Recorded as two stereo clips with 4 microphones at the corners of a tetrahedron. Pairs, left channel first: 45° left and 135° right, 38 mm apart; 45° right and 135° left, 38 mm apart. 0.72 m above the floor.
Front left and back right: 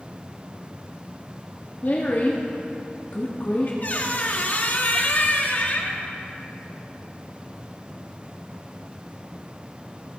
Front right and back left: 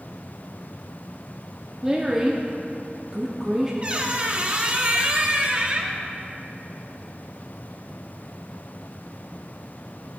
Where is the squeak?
80° left, 0.9 m.